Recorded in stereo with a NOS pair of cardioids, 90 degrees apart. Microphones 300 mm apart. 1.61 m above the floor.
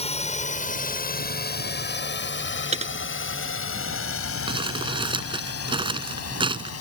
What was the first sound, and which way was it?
A drone, 20° left.